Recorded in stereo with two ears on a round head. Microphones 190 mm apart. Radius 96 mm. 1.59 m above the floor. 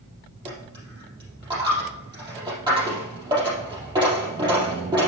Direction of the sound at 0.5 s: 20° right (ahead or behind).